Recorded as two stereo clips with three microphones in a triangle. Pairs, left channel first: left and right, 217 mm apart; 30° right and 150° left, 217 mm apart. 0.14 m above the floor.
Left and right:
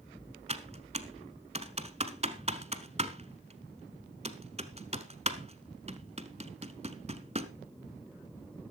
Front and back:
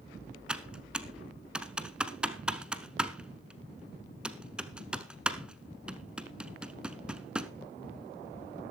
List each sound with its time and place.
0.5 s typing on a keyboard: 125° right, 0.9 m